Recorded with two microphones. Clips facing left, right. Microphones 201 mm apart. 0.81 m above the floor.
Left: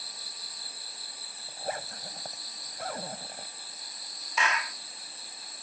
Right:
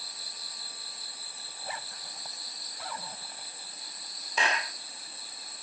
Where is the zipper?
50° left (ahead or behind).